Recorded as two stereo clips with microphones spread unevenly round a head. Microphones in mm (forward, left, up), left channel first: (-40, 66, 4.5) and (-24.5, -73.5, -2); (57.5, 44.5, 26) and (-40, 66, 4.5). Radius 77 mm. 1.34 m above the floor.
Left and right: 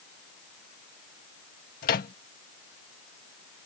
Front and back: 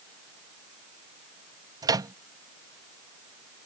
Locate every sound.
1.8 s a microwave: 115° left